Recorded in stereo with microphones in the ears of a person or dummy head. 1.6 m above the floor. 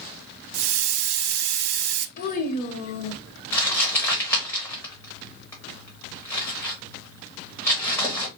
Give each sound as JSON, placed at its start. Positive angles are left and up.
{"t": 0.5, "sound": "a hiss", "side_deg": -80, "distance_m": 0.6}
{"t": 2.2, "sound": "a child speaking", "side_deg": 50, "distance_m": 0.7}
{"t": 3.5, "sound": "crumpling", "side_deg": 5, "distance_m": 1.2}